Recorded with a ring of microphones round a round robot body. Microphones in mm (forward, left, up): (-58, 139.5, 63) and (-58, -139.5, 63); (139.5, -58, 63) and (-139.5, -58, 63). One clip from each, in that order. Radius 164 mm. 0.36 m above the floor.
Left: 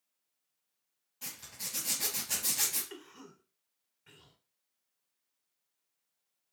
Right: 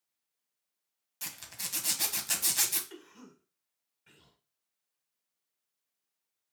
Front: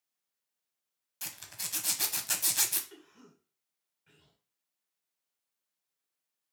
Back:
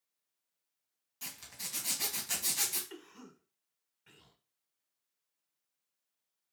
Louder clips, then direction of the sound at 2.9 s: Left 2 dB, back 4 dB; 175° left.